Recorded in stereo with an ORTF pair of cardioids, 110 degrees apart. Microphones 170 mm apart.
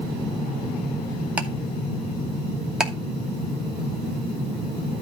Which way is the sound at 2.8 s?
5° right.